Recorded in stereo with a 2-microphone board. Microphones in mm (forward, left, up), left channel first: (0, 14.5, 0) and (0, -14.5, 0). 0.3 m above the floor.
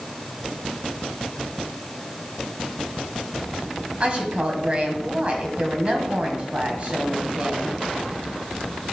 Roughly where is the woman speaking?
Right.